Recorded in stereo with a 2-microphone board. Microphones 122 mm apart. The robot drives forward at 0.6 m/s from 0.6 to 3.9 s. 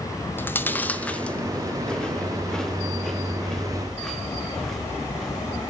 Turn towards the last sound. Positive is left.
turn(degrees=5)  # may be behind; listen again after turning